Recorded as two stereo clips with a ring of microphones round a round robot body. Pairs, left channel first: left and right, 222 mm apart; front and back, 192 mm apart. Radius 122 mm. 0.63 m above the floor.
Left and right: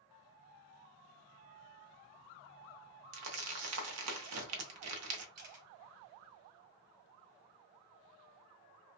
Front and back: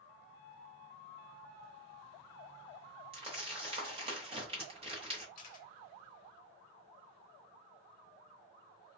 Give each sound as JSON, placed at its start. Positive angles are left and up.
{"t": 3.1, "sound": "crumpling", "azimuth_deg": -110, "distance_m": 0.7}
{"t": 5.3, "sound": "a camera shutter", "azimuth_deg": -50, "distance_m": 0.9}